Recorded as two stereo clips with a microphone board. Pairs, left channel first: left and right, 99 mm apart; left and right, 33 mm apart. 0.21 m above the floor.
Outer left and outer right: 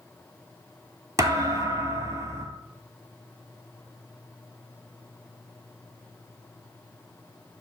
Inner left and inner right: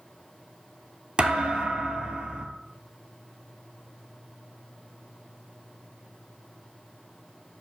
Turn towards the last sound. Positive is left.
turn(degrees=-35)  # may be behind; listen again after turning